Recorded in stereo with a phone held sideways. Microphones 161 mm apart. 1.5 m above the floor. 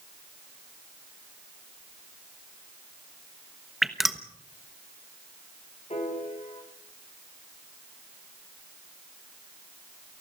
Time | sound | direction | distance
3.8 | dripping | centre (ahead or behind) | 1.1 m
5.9 | a piano | 40° left (ahead or behind) | 4.5 m